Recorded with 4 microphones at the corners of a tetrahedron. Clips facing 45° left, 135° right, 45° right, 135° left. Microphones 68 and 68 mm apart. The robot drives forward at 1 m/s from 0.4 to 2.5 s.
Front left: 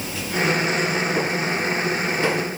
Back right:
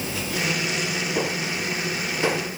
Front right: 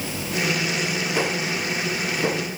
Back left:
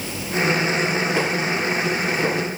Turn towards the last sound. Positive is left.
No sound to turn to.